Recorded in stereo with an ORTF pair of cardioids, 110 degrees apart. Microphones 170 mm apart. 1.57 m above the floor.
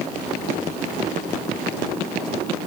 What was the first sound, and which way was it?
Only background noise.